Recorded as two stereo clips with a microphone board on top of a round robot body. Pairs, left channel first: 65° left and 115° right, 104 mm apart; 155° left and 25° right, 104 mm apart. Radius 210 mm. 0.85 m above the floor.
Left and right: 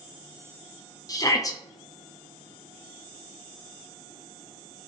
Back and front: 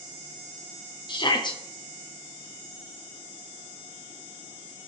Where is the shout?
120° left, 1.1 m.